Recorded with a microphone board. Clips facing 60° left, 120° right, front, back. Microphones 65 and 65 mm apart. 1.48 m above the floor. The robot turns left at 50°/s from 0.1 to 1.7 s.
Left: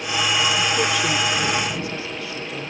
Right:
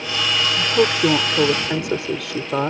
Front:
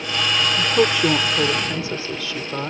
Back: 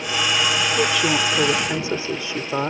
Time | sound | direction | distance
0.6 | a woman speaking | 55° right | ?